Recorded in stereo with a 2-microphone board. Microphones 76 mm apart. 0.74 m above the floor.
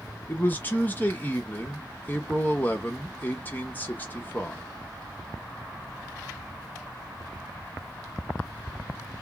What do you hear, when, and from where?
0.3 s a man speaking: 20° left (ahead or behind), 0.7 m